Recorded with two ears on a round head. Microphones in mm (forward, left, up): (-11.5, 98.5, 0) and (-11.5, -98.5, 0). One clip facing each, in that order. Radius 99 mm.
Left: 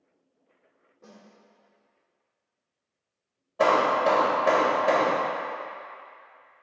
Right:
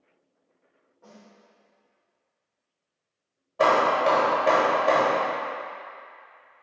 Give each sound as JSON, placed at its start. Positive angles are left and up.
{"t": 1.0, "sound": "a snare drum", "side_deg": 30, "distance_m": 1.5}
{"t": 3.6, "sound": "hammering", "side_deg": 5, "distance_m": 1.2}